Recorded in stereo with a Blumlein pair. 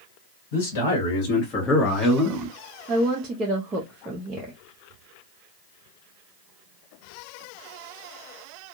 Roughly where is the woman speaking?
Ahead.